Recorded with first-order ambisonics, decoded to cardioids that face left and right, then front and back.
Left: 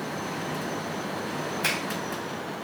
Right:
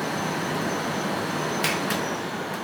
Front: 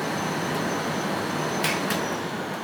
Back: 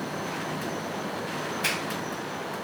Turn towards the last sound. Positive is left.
turn(degrees=-60)